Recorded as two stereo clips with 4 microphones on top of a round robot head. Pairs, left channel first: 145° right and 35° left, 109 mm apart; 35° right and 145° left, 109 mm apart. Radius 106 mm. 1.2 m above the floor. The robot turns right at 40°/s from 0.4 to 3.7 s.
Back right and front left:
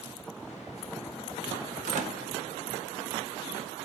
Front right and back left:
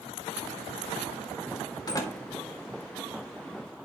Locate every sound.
1.9 s a door slam: 20° left, 2 m; by 2.2 s 35° left, 2 m